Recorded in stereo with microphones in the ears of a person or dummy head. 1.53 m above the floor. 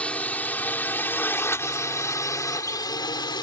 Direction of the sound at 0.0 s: 5° left (ahead or behind).